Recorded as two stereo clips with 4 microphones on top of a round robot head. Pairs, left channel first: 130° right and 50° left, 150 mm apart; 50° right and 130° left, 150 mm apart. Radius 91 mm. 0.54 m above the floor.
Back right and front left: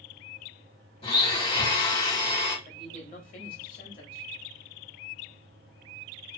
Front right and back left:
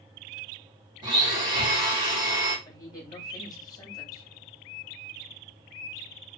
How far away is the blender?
About 1.4 m.